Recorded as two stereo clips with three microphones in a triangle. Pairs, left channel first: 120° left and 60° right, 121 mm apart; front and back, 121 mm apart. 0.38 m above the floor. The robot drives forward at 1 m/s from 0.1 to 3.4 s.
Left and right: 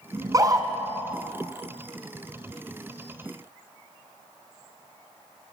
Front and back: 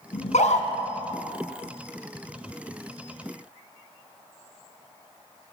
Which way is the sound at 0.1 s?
Straight ahead.